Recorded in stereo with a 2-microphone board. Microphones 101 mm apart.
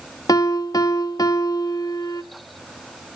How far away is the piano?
About 1.3 m.